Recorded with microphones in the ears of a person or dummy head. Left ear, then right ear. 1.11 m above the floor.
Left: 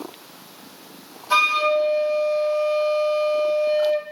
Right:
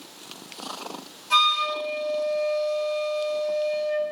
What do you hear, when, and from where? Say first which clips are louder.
1.3 s a flute: left 3 dB; 30° left (ahead or behind), 2.5 m